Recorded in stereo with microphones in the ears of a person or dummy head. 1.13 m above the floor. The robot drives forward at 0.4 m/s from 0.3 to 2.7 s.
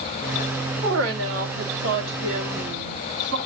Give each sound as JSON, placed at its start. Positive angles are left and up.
{"t": 0.8, "sound": "a woman speaking", "side_deg": -85, "distance_m": 2.5}